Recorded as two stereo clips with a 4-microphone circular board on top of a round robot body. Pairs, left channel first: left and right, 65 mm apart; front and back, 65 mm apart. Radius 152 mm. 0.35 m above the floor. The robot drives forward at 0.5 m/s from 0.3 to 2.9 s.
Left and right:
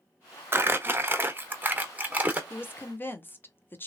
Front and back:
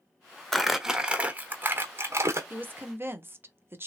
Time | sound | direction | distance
0.5 | crumpling | 85° right | 0.9 m
2.5 | a woman speaking | 125° left | 1.1 m